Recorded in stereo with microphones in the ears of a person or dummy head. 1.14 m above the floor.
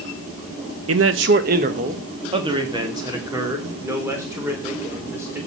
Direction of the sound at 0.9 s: 75° right (ahead or behind).